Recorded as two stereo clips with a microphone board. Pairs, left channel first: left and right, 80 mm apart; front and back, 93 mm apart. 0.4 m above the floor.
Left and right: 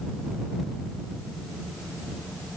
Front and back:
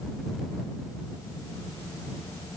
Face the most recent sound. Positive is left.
No sound to turn to.